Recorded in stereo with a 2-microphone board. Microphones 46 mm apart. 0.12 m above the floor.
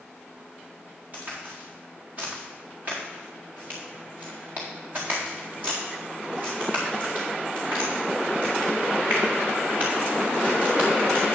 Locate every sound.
1.1 s a crack: 40° right (ahead or behind), 4 m